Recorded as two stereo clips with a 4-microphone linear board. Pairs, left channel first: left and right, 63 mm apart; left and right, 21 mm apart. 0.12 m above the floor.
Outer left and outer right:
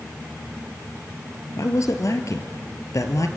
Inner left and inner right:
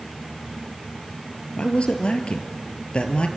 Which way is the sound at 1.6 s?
55° left (ahead or behind).